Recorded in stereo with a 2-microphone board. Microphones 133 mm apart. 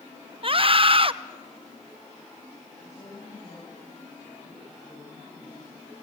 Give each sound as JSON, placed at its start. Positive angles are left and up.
{"t": 0.4, "sound": "a scream", "side_deg": -45, "distance_m": 0.9}
{"t": 2.8, "sound": "a woman speaking", "side_deg": 55, "distance_m": 8.0}